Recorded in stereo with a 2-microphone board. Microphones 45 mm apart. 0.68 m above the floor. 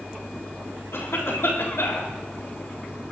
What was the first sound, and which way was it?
A cough, 70° left (ahead or behind).